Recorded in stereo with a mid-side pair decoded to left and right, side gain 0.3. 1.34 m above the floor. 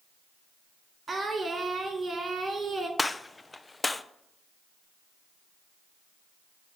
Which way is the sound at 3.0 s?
30° left.